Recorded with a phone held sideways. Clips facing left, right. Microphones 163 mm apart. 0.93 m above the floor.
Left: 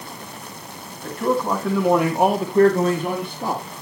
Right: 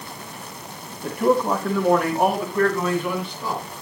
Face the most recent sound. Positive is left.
turn(degrees=60)  # may be behind; listen again after turning